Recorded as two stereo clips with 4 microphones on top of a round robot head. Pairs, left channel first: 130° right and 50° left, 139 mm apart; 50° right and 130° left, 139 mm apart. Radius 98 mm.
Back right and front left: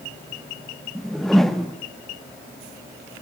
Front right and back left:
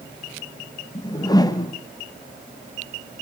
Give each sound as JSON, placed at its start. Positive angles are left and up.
{"t": 0.9, "sound": "a whoosh", "azimuth_deg": -40, "distance_m": 1.2}